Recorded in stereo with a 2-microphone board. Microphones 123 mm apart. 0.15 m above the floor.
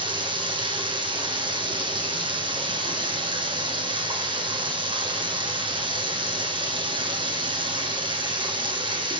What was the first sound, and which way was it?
Running water, 40° right (ahead or behind).